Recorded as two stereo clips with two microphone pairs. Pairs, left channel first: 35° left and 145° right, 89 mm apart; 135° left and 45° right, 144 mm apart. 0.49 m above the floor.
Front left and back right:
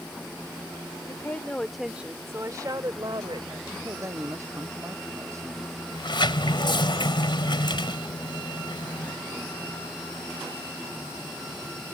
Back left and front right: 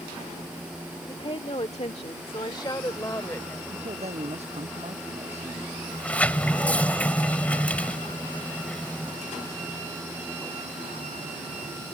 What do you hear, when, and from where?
1.1 s a woman speaking: 90° left; by 3.6 s 155° right
3.7 s a man speaking: 90° right
5.9 s a sliding door: 55° left